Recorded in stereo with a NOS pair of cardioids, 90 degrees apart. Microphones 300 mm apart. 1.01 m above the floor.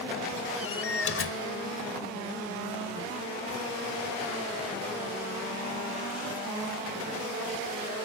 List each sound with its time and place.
0.6 s a door slam: 40° left